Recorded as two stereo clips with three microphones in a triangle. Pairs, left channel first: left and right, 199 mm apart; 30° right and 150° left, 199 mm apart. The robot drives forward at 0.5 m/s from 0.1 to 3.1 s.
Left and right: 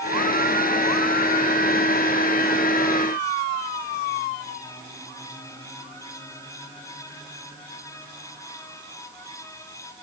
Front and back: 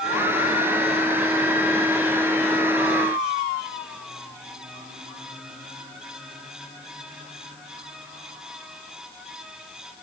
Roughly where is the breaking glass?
I don't hear breaking glass.